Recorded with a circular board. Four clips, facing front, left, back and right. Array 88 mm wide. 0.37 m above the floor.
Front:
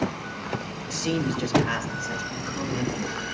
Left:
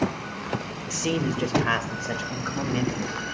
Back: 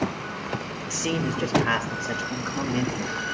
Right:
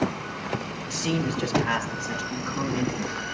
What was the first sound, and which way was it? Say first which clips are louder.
A man speaking: left 1 dB, front 1 dB; 145° left.